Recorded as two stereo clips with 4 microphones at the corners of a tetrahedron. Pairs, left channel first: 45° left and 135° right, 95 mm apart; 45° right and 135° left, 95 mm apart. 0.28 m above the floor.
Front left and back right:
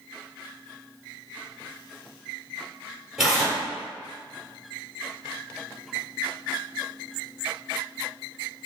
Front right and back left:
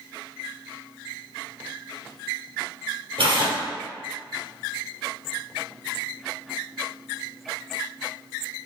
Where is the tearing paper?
140° left, 1.8 m.